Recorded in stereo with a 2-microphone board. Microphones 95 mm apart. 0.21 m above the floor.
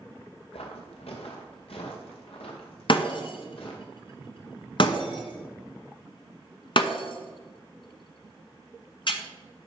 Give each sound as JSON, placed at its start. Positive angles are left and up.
{"t": 0.5, "sound": "footsteps", "side_deg": 85, "distance_m": 2.0}
{"t": 2.9, "sound": "breaking glass", "side_deg": 60, "distance_m": 1.2}